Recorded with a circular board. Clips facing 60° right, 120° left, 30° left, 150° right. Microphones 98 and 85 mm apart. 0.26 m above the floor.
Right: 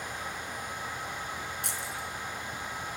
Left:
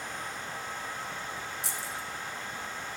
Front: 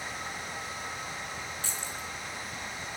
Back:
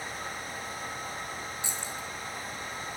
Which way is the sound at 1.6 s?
80° right.